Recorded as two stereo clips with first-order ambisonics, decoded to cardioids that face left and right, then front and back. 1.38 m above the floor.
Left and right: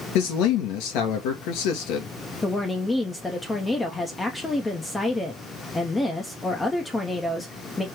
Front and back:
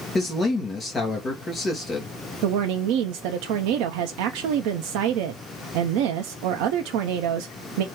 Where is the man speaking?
75° left, 1.8 m.